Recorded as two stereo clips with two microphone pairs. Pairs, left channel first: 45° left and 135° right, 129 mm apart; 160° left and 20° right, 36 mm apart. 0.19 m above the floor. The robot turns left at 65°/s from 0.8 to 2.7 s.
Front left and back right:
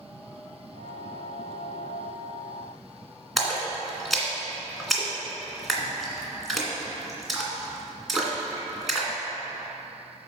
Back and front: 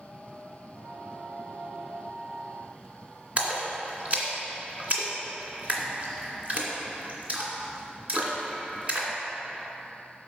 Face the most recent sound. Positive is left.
turn(degrees=-45)